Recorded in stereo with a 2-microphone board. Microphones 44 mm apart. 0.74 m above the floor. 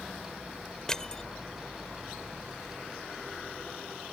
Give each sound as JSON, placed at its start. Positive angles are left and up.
{"t": 0.9, "sound": "crushing", "side_deg": 15}